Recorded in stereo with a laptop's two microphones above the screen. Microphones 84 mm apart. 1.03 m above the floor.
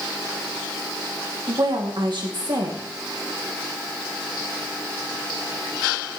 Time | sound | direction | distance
1.5 | a woman speaking | 60° right (ahead or behind) | 1.9 m